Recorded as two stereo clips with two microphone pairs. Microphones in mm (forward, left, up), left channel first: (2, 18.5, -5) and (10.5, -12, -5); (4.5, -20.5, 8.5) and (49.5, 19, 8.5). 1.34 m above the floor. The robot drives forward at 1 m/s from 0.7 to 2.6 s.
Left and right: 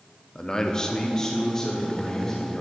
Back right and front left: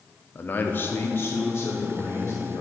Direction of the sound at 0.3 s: 165° left.